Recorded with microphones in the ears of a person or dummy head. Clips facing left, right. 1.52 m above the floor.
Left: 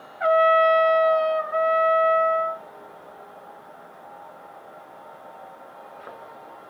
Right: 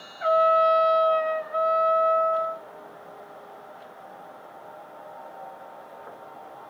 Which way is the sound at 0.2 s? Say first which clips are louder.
Left 3 dB; 65° left (ahead or behind).